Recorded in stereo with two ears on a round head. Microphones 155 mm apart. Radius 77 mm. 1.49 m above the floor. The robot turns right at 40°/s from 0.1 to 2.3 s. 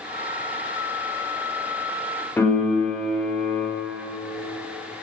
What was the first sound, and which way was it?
A piano, 10° left (ahead or behind).